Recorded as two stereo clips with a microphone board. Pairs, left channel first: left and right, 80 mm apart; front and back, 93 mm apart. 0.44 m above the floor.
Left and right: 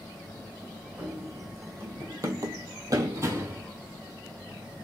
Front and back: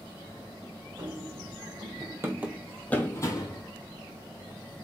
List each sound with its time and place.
1.0 s running footsteps: 155° right, 1.4 m; by 3.6 s 30° right, 0.9 m